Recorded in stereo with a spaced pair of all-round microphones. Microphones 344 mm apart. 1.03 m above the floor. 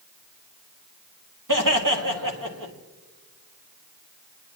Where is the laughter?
65° right (ahead or behind), 1.9 m.